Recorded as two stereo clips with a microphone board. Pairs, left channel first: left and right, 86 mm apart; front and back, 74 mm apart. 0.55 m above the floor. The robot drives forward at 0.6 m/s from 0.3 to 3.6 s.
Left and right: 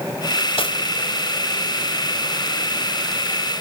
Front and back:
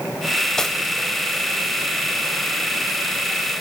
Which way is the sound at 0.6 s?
85° left.